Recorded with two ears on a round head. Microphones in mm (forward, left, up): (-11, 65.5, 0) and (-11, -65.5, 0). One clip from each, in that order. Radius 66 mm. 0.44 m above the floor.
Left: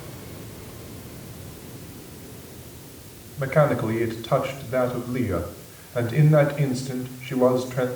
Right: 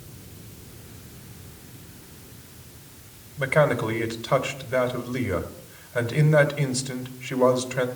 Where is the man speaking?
55° right (ahead or behind), 1.8 m.